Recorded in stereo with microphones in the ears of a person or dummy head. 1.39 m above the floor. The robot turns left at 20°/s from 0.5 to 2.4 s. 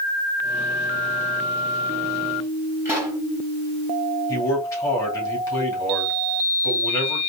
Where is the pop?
15° right (ahead or behind), 3 m.